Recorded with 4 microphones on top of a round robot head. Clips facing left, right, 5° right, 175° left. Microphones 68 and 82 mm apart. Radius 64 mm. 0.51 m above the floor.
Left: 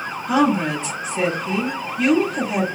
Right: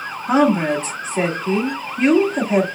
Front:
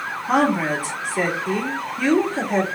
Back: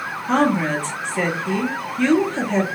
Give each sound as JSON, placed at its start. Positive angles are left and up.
{"t": 0.3, "sound": "a woman speaking", "azimuth_deg": -80, "distance_m": 1.5}